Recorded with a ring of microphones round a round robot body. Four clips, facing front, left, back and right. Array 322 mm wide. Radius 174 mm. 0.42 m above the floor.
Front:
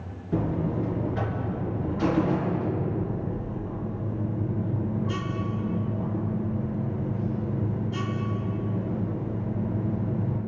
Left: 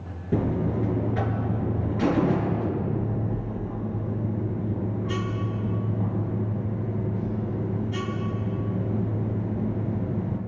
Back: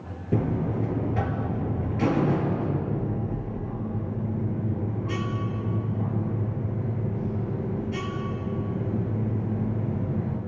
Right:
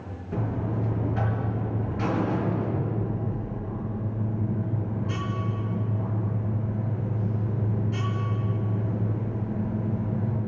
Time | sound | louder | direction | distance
0.3 | a buzzer | left 5 dB, back 1 dB | 145° left | 4 m